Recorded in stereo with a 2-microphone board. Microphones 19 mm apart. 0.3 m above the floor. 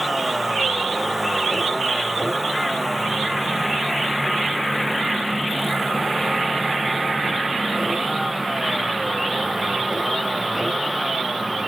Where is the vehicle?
15° right (ahead or behind).